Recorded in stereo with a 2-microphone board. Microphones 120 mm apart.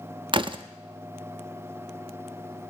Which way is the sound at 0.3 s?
40° right (ahead or behind).